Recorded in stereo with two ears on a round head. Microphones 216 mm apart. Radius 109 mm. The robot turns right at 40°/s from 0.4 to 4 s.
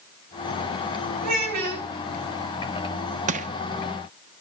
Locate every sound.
1.2 s a child speaking: 80° right, 4.5 m; by 1.9 s 75° right (ahead or behind), 4.5 m
3.3 s crushing: 30° right (ahead or behind), 0.6 m